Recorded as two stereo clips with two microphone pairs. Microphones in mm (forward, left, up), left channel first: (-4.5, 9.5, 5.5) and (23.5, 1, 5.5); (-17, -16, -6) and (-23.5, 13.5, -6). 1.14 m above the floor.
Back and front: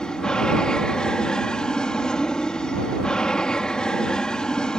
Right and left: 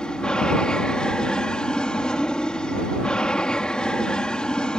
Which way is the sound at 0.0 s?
135° right.